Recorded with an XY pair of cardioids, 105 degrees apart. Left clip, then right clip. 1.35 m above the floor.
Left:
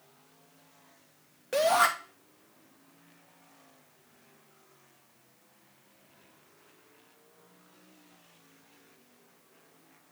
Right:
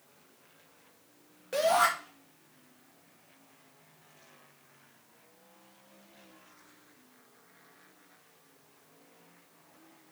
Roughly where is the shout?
Ahead left.